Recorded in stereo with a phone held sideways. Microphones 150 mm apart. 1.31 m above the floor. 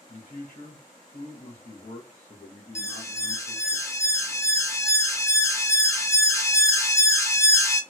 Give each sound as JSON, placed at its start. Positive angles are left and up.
{"t": 0.1, "sound": "a man speaking", "side_deg": 55, "distance_m": 1.2}
{"t": 2.8, "sound": "an alarm", "side_deg": 20, "distance_m": 0.5}